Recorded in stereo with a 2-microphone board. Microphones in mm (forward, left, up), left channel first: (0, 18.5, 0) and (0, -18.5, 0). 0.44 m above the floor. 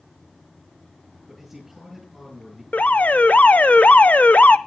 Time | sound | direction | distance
1.3 | a man speaking | 5° right (ahead or behind) | 8.5 m
2.7 | an alarm | 45° left (ahead or behind) | 0.7 m